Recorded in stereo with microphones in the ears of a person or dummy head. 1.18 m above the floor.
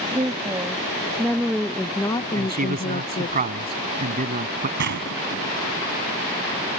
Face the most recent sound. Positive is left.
turn(degrees=-65)  # may be behind; listen again after turning